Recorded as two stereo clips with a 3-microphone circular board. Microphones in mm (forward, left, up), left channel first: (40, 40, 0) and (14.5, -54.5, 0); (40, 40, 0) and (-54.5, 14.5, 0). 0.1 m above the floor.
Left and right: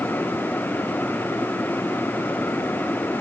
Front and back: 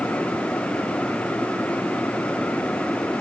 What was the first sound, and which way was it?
Only background noise.